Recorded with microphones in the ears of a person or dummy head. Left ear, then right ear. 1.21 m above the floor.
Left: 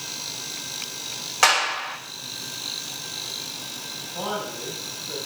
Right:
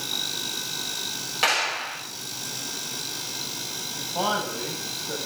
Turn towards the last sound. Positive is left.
turn(degrees=-20)  # may be behind; listen again after turning